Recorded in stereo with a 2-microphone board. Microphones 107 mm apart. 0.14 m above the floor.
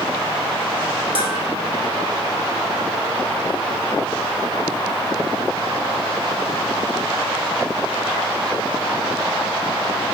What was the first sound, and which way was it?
Dishes clattering, 65° right (ahead or behind).